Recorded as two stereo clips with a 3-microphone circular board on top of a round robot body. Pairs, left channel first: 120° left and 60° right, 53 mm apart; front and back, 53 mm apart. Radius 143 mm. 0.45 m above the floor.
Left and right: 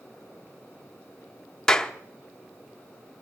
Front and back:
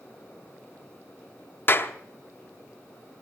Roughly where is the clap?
Ahead left.